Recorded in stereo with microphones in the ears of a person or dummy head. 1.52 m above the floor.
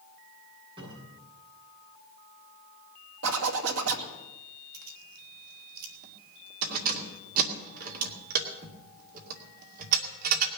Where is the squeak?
I don't hear a squeak.